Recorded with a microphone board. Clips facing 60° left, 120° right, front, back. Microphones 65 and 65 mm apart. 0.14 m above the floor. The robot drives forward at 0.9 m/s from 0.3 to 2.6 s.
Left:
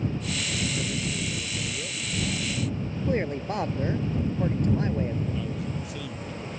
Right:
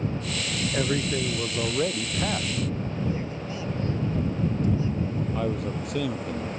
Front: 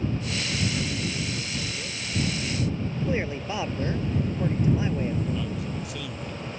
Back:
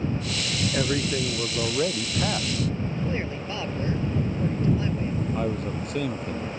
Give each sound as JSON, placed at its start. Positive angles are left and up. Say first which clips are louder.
{"t": 0.7, "sound": "a man speaking", "louder": "right 5 dB, back 5 dB", "azimuth_deg": -145}
{"t": 3.1, "sound": "a man speaking", "louder": "left 4 dB, front 2 dB", "azimuth_deg": 70}
{"t": 5.3, "sound": "a man speaking", "louder": "right 4 dB, back 4 dB", "azimuth_deg": -140}